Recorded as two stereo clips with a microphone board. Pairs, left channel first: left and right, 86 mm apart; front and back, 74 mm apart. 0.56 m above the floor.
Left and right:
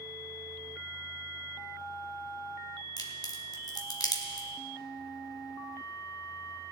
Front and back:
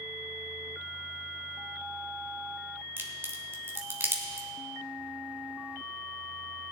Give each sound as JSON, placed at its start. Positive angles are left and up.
{"t": 3.0, "sound": "a crack", "azimuth_deg": 125, "distance_m": 1.7}